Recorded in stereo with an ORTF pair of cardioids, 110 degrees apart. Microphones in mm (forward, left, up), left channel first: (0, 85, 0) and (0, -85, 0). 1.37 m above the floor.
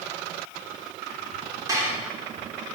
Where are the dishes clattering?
20° right, 3 m.